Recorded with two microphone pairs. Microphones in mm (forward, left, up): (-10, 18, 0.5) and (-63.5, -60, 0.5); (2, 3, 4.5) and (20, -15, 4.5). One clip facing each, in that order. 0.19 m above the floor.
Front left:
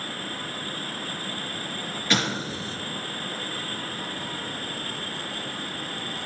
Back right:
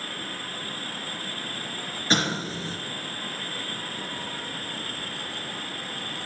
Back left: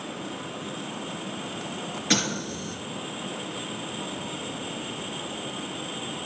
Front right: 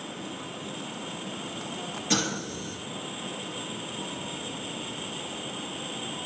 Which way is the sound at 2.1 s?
Straight behind.